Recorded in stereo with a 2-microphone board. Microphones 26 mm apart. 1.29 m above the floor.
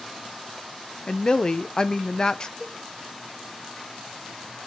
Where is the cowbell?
70° right (ahead or behind), 1.2 m.